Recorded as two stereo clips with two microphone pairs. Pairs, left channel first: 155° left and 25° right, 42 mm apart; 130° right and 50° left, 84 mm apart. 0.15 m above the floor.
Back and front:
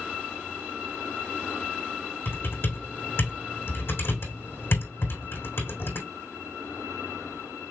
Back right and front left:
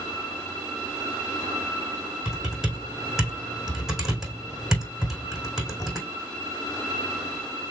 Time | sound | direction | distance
2.2 | typing on a keyboard | 135° left | 2.5 m